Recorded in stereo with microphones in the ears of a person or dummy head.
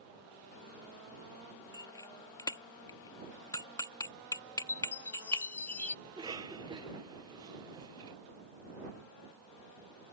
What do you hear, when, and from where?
1.7 s a bicycle bell: 20° left (ahead or behind)
4.7 s a chime: 10° left (ahead or behind)
6.0 s a cough: 20° right (ahead or behind)